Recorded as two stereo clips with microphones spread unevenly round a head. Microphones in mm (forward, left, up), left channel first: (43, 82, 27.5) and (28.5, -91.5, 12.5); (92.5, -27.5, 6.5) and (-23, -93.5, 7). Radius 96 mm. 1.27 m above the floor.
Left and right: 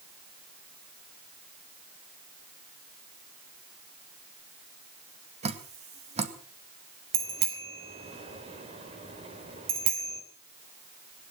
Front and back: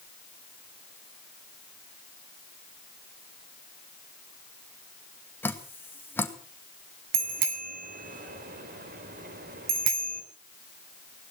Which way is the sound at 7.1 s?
160° right.